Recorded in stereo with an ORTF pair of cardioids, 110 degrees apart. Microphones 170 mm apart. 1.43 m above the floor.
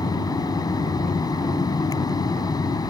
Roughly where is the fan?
Ahead.